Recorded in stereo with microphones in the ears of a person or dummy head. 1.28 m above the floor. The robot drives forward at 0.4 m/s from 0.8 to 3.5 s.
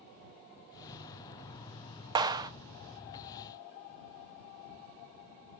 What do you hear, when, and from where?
2.1 s a clap: 25° right (ahead or behind), 0.8 m; by 2.5 s 20° right (ahead or behind), 0.9 m